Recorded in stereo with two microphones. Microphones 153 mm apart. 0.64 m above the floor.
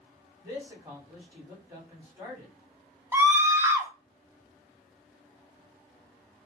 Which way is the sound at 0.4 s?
20° right (ahead or behind).